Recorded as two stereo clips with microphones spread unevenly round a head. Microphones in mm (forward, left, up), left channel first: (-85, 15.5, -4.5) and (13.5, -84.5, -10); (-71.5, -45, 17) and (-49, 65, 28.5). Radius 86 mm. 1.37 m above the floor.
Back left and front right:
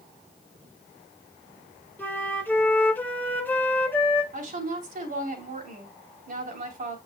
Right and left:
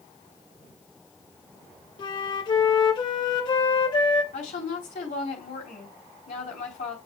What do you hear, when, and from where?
2.0 s a flute: 150° right, 1.7 m
4.3 s a woman speaking: 70° right, 3.5 m